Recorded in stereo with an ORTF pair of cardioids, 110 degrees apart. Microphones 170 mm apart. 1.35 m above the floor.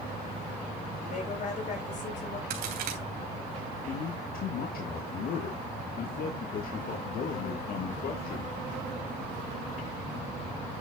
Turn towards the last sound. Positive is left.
turn(degrees=60)